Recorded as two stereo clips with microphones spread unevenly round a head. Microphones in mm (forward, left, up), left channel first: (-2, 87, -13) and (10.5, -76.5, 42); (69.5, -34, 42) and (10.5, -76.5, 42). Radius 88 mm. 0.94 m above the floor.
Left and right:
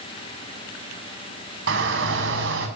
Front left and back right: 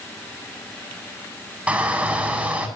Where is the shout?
70° right, 7.5 m.